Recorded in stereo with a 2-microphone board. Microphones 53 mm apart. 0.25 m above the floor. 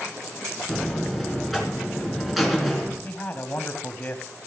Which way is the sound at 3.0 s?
35° left (ahead or behind).